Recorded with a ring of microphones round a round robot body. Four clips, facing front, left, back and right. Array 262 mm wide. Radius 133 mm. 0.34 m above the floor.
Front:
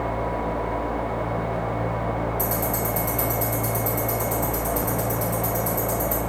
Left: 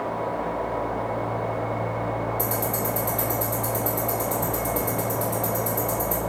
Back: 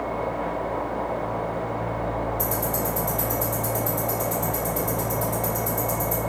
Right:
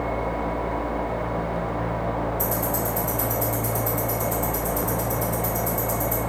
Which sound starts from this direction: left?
Ticking, at 2.4 s.